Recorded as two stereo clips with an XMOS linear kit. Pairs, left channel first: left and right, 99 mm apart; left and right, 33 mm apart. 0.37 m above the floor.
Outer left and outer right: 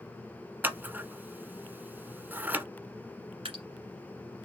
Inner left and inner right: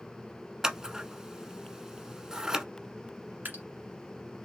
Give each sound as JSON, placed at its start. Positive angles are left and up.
{"t": 0.6, "sound": "scissors", "side_deg": -20, "distance_m": 0.6}
{"t": 3.5, "sound": "dripping", "side_deg": -60, "distance_m": 1.4}